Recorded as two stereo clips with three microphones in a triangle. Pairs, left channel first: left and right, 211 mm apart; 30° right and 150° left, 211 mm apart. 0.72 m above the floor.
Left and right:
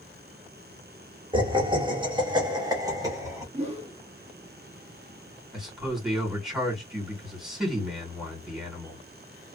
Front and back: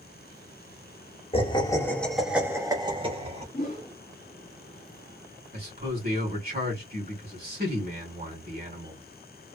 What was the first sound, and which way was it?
Laughter, 50° right.